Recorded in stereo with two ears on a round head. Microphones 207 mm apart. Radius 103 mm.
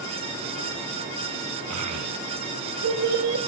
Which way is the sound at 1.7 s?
80° right.